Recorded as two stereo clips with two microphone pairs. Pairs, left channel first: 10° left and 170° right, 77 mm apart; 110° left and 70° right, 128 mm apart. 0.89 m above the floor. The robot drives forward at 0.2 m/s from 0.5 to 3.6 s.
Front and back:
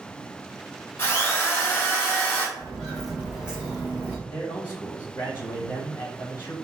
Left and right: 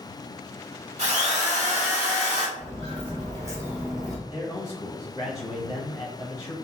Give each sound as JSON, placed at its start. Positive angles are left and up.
{"t": 1.0, "sound": "a drill", "azimuth_deg": -45, "distance_m": 1.5}
{"t": 2.6, "sound": "footsteps", "azimuth_deg": -65, "distance_m": 1.3}
{"t": 4.3, "sound": "a man speaking", "azimuth_deg": 50, "distance_m": 0.6}